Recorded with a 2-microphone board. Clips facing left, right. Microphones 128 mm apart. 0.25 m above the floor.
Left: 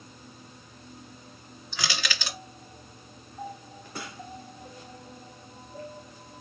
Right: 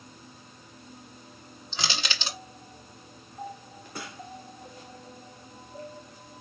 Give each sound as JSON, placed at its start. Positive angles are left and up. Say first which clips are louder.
{"t": 1.7, "sound": "crushing", "louder": "even", "side_deg": -25, "distance_m": 0.8}